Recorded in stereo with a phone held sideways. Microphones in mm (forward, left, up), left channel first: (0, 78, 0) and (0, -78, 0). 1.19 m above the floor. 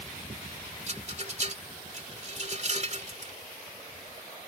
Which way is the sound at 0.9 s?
50° right (ahead or behind).